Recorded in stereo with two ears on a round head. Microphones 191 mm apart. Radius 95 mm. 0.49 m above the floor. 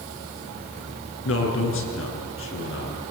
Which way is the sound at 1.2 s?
65° left (ahead or behind).